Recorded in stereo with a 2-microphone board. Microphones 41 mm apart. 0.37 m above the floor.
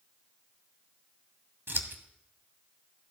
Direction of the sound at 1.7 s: 70° right (ahead or behind).